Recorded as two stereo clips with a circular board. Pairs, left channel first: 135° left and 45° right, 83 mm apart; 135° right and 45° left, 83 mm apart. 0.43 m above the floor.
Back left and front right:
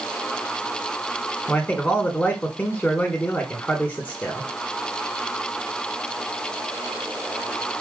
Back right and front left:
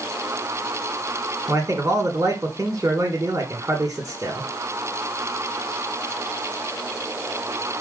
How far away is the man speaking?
About 1.0 m.